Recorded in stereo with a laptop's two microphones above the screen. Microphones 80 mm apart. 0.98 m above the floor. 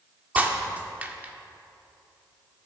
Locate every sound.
0.3 s breaking glass: 20° right (ahead or behind), 0.7 m